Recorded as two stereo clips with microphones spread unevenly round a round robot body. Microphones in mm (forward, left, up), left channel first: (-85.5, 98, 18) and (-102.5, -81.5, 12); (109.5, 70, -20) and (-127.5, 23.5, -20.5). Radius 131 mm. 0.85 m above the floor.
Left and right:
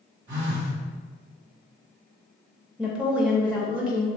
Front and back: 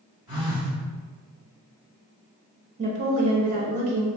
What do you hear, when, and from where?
0.3 s a phone buzzing: 85° right, 1.6 m
2.8 s a woman speaking: 170° right, 0.6 m